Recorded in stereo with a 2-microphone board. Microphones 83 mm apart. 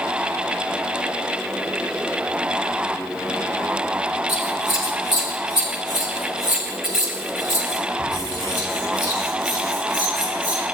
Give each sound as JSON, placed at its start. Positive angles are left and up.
{"t": 4.3, "sound": "scissors", "side_deg": 65, "distance_m": 5.5}